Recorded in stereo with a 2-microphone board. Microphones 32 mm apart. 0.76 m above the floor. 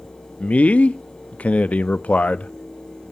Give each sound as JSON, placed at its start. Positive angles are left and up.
{"t": 0.4, "sound": "a man speaking", "side_deg": 45, "distance_m": 0.5}